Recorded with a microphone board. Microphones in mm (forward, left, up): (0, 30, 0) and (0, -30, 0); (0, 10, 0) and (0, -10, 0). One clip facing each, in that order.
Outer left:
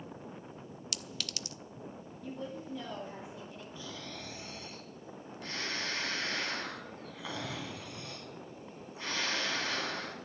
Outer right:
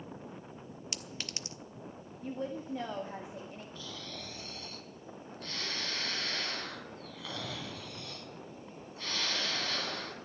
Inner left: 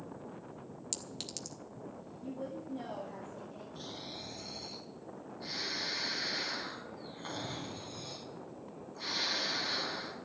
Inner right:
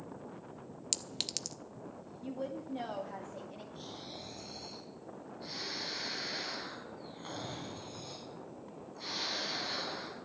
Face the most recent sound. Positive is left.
turn(degrees=15)  # may be behind; listen again after turning